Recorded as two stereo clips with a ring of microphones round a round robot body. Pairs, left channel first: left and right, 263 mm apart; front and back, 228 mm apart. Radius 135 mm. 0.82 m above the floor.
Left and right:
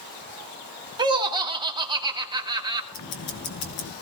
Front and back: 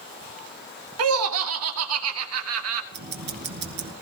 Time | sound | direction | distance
1.0 | laughter | 165° right | 1.5 m
2.9 | ticking | 140° left | 2.0 m